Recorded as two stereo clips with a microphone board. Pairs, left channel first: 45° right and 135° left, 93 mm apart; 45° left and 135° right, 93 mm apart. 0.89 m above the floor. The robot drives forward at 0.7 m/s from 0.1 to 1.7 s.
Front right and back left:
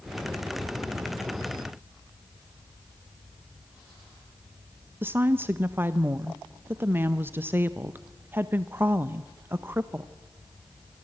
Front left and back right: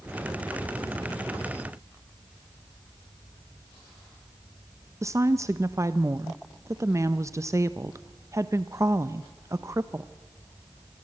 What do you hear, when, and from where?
5.0 s a woman speaking: 170° right, 0.6 m